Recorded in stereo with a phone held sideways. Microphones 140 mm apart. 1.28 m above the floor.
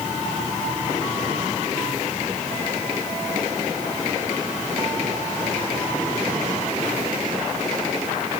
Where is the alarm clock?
I don't hear an alarm clock.